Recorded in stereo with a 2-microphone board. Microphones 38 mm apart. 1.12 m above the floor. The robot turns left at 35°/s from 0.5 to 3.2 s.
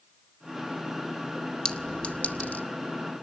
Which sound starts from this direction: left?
A clink, at 1.6 s.